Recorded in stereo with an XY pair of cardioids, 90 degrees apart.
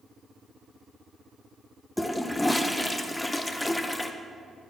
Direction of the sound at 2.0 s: 10° left.